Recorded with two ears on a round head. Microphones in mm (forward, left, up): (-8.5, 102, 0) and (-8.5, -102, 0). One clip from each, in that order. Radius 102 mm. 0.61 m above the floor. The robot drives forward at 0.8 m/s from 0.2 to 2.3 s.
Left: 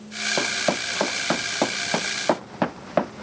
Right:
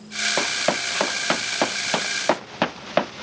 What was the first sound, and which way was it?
Running footsteps, 65° right (ahead or behind).